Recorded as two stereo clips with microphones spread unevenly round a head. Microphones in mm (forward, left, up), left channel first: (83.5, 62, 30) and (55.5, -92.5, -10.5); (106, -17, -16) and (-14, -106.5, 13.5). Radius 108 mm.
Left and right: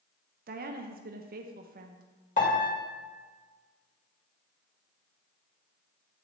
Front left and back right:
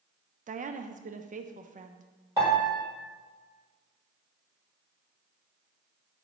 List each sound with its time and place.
0.5 s a woman speaking: 100° right, 0.6 m
2.4 s a piano: 140° left, 1.8 m